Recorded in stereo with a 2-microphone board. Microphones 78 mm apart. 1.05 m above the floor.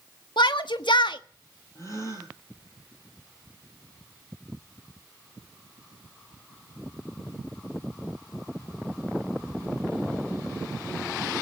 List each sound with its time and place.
0.4 s a shout: 85° left, 1.3 m
1.8 s a gasp: 40° left (ahead or behind), 10 m